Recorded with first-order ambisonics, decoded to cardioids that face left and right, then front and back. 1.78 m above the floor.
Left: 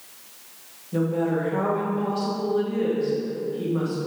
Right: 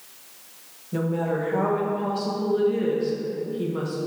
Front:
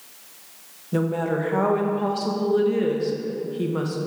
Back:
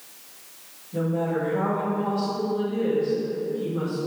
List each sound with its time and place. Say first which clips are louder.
0.9 s a woman speaking: left 2 dB, front 2 dB; 10° right, 1.3 m